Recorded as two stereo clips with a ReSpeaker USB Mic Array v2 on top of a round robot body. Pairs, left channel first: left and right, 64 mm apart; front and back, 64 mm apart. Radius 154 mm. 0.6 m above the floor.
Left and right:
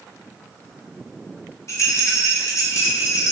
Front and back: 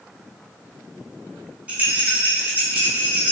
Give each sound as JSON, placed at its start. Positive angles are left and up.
{"t": 1.7, "sound": "a rattle", "azimuth_deg": 115, "distance_m": 1.2}